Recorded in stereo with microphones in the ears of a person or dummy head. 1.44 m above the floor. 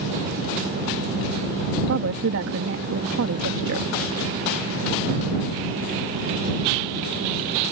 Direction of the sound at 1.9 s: 65° right (ahead or behind).